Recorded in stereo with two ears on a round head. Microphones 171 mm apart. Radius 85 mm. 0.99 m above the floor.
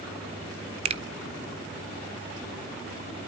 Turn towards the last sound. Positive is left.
turn(degrees=-30)  # may be behind; listen again after turning